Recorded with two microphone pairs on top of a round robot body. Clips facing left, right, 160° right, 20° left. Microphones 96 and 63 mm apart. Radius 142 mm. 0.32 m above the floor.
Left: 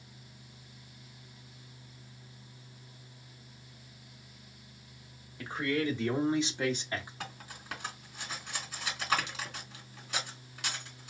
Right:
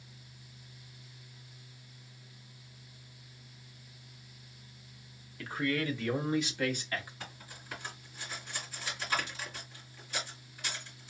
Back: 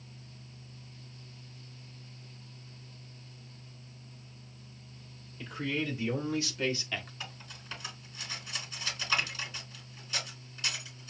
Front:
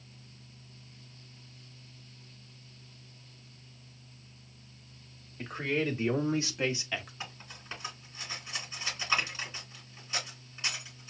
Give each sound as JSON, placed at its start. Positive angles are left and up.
{"t": 5.4, "sound": "a man speaking", "azimuth_deg": 40, "distance_m": 1.7}
{"t": 7.2, "sound": "cutlery clinking", "azimuth_deg": 90, "distance_m": 2.5}